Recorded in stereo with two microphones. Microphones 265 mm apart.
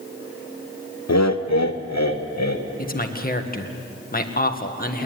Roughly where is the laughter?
Left.